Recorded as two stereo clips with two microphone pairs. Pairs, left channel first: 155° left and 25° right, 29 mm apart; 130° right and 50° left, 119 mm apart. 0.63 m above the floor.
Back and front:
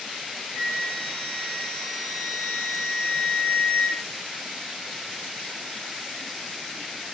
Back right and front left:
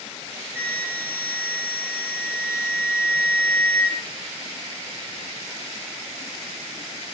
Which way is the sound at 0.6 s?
150° left.